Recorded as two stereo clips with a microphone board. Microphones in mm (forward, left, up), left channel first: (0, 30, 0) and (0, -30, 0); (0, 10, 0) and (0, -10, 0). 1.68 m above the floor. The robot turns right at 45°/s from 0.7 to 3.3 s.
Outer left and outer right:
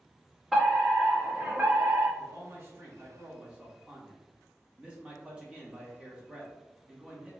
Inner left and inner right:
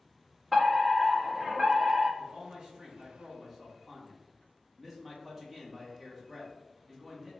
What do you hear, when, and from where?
0.5 s a fire alarm: 175° right, 1.2 m; by 2.1 s 115° right, 1.2 m
2.2 s a man speaking: 65° right, 1.3 m; by 7.3 s 15° right, 1.3 m